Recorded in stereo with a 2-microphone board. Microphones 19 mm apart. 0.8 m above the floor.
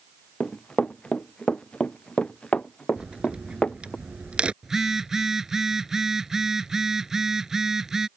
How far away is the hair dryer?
No hair dryer in this recording.